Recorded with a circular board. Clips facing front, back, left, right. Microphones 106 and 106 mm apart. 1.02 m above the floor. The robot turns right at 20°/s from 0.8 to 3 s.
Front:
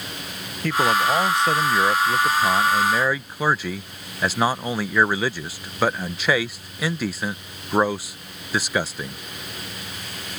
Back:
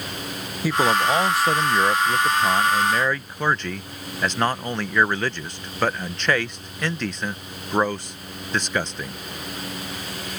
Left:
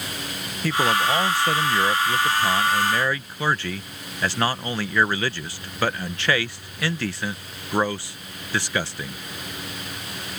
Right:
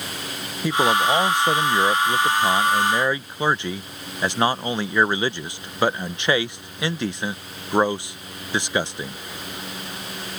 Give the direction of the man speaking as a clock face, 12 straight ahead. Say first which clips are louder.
Even, right 2 dB; 4 o'clock.